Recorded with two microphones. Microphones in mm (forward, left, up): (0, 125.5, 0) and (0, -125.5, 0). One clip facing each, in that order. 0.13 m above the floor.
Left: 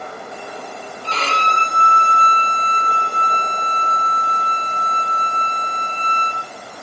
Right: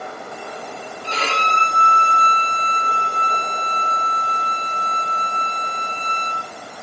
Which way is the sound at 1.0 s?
15° right (ahead or behind).